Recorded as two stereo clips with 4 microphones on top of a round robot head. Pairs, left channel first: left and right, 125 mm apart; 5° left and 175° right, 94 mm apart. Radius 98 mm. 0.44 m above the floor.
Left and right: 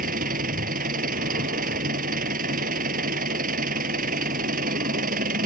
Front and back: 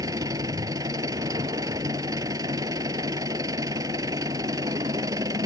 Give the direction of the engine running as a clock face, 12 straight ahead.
4 o'clock.